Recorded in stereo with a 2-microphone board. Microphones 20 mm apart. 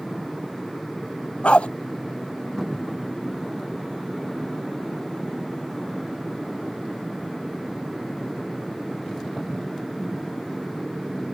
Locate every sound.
1.4 s a dog barking: 80° left